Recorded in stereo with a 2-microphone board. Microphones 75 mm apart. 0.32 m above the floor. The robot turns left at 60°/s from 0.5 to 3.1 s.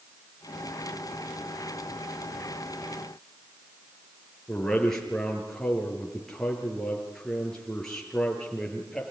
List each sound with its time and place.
4.5 s a man speaking: 5° left (ahead or behind), 6 m